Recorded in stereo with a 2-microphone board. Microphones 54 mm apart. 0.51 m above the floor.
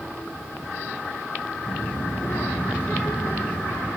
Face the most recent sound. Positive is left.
turn(degrees=75)  # may be behind; listen again after turning